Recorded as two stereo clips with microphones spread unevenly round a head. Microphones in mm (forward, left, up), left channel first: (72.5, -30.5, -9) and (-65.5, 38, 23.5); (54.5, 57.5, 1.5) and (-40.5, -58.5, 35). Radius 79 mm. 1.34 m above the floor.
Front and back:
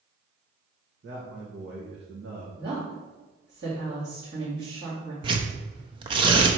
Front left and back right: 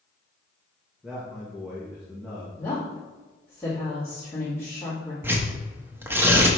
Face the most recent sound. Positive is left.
turn(degrees=175)